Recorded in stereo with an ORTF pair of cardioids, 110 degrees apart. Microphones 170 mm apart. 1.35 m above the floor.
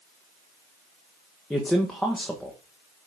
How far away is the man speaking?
About 1.1 m.